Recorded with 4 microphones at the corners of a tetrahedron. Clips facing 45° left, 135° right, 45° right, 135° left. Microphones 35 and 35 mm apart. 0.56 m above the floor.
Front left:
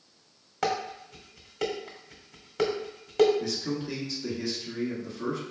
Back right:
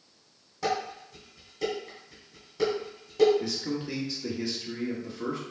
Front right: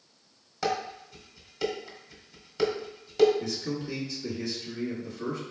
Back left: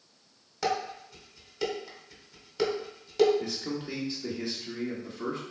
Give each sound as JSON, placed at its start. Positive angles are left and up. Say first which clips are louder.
{"t": 0.6, "sound": "dishes clattering", "louder": "front left 1 dB, even", "azimuth_deg": 50, "distance_m": 1.2}
{"t": 3.4, "sound": "a man speaking", "louder": "even, front right 1 dB", "azimuth_deg": 150, "distance_m": 1.3}